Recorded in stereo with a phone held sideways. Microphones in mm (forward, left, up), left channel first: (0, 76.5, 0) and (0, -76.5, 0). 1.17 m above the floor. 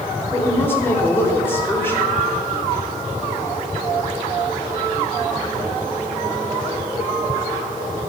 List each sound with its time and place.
0.3 s a woman speaking: 15° left (ahead or behind), 3.5 m